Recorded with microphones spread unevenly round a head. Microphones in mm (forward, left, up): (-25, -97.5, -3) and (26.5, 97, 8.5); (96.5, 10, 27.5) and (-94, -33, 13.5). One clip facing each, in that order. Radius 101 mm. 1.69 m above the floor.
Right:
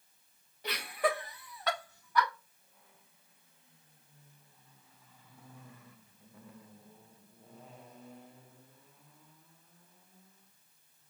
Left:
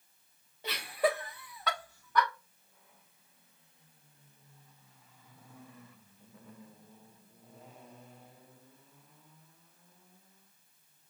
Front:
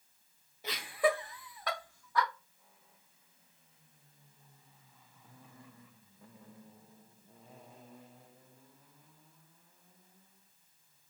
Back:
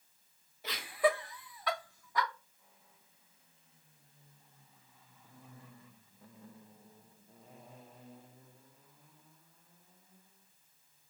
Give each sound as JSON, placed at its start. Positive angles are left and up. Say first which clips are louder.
{"t": 0.6, "sound": "laughter", "louder": "left 2 dB, even", "azimuth_deg": 10, "distance_m": 2.0}